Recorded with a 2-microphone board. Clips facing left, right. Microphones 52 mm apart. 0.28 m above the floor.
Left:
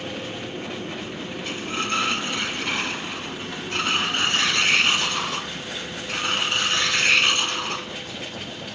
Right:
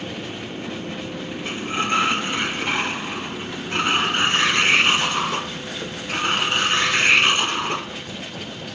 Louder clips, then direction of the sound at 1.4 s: Right 4 dB; 25° right (ahead or behind).